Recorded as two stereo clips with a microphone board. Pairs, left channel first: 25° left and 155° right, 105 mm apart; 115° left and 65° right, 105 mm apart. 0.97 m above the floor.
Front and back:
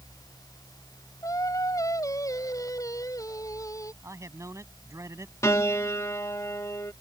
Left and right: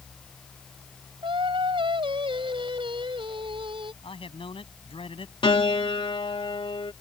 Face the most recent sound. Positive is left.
turn(degrees=85)